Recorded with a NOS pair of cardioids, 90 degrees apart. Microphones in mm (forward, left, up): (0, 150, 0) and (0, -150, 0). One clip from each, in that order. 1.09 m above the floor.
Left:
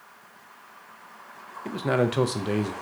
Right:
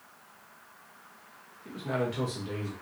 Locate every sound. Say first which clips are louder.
1.6 s a man speaking: left 7 dB; 60° left, 0.6 m